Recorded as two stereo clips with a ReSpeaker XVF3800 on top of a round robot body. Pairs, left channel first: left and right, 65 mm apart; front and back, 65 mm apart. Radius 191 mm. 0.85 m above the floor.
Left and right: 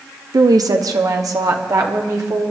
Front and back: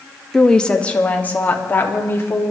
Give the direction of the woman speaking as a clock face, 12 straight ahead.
3 o'clock.